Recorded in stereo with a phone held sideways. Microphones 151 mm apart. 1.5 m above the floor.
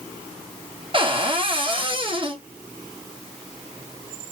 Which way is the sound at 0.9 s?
35° right (ahead or behind).